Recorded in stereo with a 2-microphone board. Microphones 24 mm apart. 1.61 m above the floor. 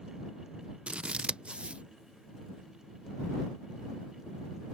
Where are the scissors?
50° right (ahead or behind).